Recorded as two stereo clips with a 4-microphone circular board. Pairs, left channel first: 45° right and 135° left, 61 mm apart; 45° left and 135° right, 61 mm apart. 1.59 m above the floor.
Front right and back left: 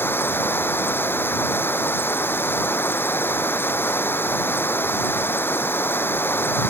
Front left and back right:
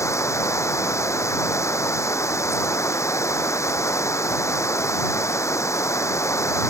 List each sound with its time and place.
0.0 s running water: 10° left